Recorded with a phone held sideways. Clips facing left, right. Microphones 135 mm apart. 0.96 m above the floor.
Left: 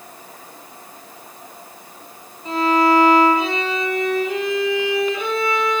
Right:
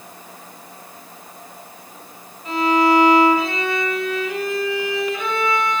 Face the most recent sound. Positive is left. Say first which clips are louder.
# even
turn(degrees=35)  # may be behind; listen again after turning